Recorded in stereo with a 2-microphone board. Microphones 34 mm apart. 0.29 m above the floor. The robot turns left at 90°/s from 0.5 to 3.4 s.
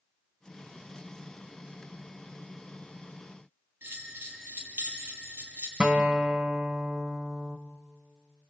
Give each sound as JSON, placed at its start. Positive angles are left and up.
{"t": 3.8, "sound": "a bell", "side_deg": -80, "distance_m": 6.5}
{"t": 5.8, "sound": "a guitar", "side_deg": -30, "distance_m": 1.7}